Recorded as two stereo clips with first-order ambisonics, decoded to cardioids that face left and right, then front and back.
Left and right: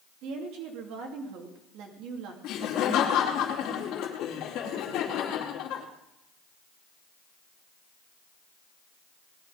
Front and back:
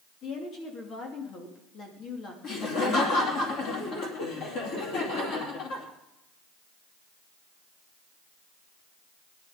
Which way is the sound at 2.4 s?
45° left.